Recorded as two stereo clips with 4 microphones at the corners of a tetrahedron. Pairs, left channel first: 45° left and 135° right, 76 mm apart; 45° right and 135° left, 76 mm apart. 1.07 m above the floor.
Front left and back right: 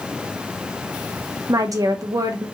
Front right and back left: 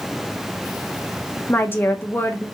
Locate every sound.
1.5 s a woman speaking: 105° right, 0.8 m